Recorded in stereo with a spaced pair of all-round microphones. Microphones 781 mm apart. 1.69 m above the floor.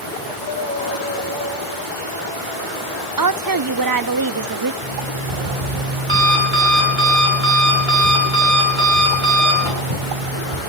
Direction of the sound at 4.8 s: 80° right.